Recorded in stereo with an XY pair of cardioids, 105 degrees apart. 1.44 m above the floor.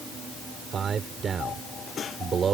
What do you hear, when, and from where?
0.7 s a man speaking: 45° right